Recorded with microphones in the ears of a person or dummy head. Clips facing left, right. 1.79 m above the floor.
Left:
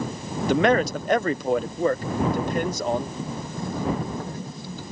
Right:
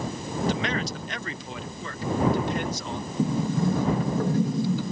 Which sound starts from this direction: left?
A man speaking, at 0.5 s.